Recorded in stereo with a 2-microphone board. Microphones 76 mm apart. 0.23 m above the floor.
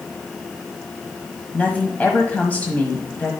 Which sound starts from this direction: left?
A woman speaking, at 1.5 s.